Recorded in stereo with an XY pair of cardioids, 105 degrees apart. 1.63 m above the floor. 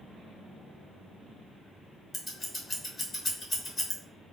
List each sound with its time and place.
2.1 s scissors: 30° left, 1.3 m